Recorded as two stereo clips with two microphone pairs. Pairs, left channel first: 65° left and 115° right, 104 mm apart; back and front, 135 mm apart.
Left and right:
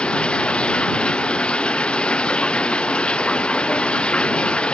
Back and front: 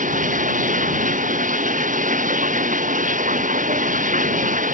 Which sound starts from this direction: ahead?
Running water, at 0.0 s.